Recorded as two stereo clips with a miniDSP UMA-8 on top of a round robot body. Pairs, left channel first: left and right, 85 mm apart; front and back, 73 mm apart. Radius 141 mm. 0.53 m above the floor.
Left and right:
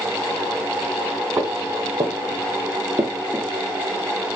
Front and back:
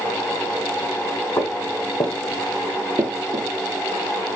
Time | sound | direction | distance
1.4 | footsteps | 30° right | 1.8 m